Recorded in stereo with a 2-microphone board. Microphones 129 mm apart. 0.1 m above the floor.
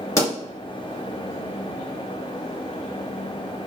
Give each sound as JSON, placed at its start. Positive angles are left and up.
{"t": 0.2, "sound": "a pop", "side_deg": 25, "distance_m": 1.6}